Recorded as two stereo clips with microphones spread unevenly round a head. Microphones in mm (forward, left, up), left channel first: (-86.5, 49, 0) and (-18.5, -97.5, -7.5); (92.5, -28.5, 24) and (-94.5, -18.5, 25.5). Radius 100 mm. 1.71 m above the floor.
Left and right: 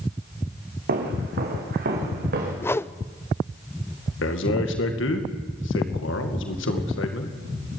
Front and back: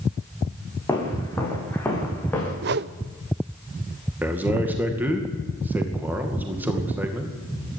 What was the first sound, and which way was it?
Footsteps, 80° right.